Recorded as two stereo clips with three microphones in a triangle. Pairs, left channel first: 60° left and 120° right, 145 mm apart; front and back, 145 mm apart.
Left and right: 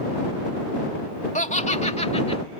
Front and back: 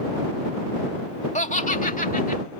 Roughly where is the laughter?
Ahead left.